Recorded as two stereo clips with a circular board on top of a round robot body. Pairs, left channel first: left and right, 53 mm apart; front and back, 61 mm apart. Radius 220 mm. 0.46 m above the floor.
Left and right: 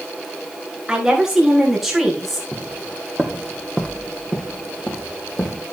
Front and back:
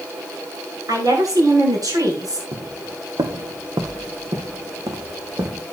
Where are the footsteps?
175° right, 1.2 m; by 5.6 s 155° left, 4 m.